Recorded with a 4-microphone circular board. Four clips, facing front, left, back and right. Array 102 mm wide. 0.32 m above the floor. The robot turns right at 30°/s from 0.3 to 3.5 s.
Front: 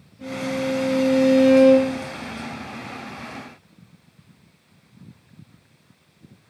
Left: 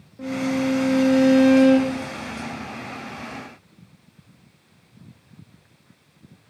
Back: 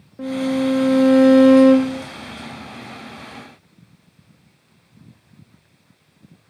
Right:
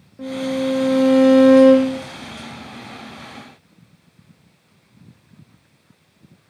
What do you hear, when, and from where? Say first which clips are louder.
0.2 s a violin: right 1 dB, back 6 dB; 170° right, 2.5 m; by 2.0 s 120° right, 2.5 m